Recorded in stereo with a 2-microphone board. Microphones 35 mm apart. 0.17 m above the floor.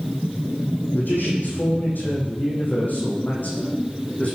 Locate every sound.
0.9 s a man speaking: 70° left (ahead or behind), 8.5 m; by 4.3 s 45° left (ahead or behind), 11 m